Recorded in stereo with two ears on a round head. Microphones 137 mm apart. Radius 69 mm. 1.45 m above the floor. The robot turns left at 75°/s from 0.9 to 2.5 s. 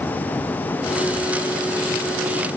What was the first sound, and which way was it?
Only background noise.